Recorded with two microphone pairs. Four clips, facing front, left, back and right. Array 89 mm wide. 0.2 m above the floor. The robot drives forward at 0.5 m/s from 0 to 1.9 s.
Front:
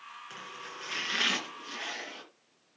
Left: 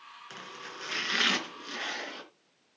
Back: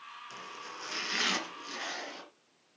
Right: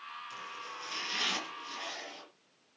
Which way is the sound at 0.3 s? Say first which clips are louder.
Right 1 dB, even; 75° left.